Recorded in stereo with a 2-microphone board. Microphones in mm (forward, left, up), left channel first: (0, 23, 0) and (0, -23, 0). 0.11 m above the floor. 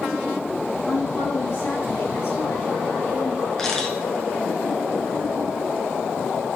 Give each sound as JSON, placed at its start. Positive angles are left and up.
{"t": 0.9, "sound": "a woman speaking", "side_deg": 55, "distance_m": 2.5}
{"t": 3.6, "sound": "a camera shutter", "side_deg": 10, "distance_m": 1.5}